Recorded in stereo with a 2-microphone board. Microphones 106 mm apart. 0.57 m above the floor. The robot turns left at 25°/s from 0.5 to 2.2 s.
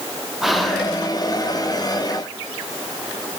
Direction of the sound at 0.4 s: Centre (ahead or behind).